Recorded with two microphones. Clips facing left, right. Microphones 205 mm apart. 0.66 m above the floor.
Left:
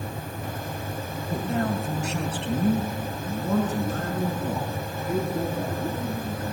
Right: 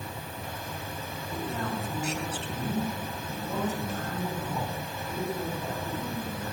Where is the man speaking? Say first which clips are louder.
Left 7 dB; 65° left (ahead or behind), 3 m; by 6.4 s 85° left, 11 m.